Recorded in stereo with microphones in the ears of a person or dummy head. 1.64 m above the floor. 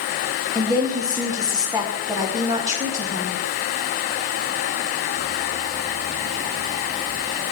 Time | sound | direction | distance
0.6 | a woman speaking | 15° right (ahead or behind) | 3 m